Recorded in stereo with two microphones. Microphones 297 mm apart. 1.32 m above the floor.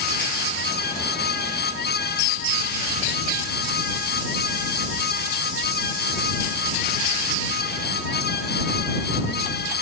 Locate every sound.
Only background noise.